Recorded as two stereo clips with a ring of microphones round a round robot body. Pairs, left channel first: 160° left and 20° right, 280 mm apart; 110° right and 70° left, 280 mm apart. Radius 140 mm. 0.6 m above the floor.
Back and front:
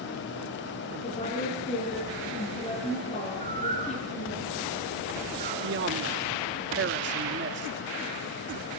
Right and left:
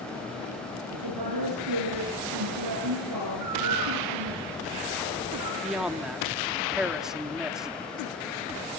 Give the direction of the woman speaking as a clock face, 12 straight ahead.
9 o'clock.